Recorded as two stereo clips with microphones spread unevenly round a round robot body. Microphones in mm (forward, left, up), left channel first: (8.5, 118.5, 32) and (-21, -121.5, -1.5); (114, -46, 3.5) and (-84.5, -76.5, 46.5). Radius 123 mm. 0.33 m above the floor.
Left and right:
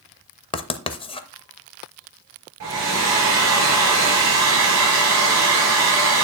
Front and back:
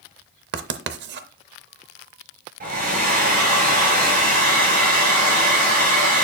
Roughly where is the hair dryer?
Behind right.